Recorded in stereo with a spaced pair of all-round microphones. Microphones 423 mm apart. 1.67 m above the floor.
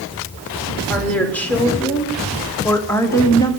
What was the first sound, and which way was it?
A woman speaking, 5° left (ahead or behind).